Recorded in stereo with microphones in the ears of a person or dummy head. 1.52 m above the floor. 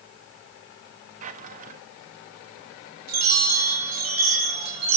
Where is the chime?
80° right, 8.5 m.